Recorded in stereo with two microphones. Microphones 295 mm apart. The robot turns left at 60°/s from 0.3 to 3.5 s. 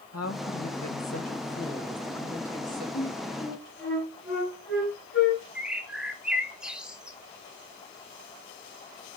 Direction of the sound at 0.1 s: 115° left.